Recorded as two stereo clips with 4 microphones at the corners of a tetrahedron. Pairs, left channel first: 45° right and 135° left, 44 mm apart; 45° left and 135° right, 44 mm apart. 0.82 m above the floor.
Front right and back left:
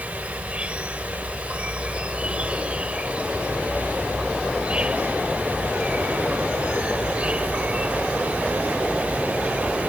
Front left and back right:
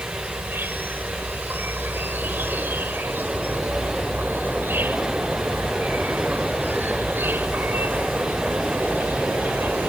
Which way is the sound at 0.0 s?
165° right.